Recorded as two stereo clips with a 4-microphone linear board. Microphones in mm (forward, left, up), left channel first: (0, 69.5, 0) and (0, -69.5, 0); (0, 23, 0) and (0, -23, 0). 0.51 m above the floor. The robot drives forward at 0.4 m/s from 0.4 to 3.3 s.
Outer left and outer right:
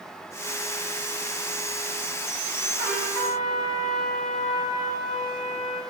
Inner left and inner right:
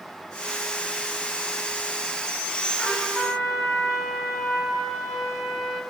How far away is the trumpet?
About 3.5 m.